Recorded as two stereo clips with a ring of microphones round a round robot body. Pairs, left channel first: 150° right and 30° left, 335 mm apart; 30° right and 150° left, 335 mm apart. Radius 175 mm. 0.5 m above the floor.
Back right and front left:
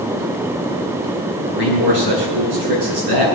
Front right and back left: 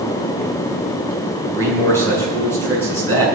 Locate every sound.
1.5 s a man speaking: 55° left, 7.5 m